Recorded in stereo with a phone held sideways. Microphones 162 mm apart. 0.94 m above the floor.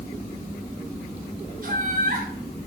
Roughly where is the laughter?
Right.